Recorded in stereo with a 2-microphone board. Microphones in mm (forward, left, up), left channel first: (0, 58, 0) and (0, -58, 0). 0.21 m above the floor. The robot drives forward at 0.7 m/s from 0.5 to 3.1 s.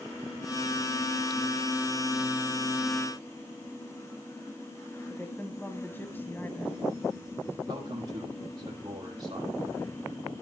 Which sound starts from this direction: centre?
A woman speaking, at 5.1 s.